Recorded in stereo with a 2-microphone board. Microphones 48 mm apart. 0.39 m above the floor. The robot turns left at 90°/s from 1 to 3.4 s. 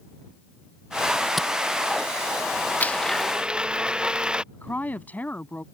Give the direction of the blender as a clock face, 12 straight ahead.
11 o'clock.